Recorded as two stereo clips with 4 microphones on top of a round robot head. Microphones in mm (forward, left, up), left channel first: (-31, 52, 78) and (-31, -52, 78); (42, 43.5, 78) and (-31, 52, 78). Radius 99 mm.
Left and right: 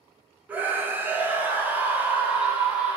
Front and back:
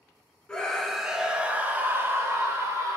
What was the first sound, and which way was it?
A scream, 50° right.